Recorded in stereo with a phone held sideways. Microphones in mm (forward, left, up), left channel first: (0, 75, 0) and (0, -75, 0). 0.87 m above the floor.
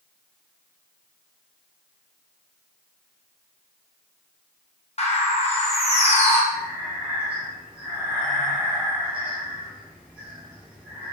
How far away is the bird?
About 0.5 m.